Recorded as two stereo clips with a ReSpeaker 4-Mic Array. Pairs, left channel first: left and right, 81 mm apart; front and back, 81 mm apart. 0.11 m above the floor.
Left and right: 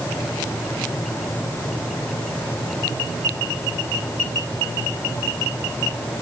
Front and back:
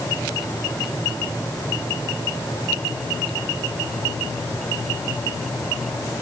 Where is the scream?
No scream in this recording.